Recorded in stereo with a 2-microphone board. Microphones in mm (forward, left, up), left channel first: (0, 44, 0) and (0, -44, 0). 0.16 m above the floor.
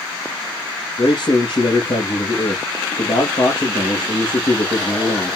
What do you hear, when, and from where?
1.0 s a man speaking: 60° left (ahead or behind), 4 m